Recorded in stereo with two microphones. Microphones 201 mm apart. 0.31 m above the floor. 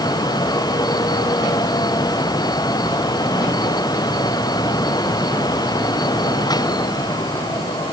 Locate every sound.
Only background noise.